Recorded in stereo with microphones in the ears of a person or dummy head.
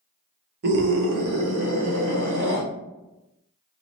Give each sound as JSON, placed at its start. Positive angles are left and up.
{"t": 0.6, "sound": "a scream", "side_deg": -60, "distance_m": 0.9}